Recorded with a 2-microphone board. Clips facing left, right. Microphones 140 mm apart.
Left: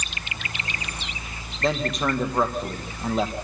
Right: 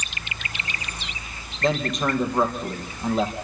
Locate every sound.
1.6 s a man speaking: centre (ahead or behind), 3.5 m